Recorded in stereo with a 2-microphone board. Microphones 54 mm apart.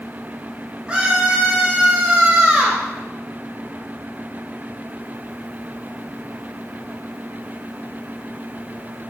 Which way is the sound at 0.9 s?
20° right (ahead or behind).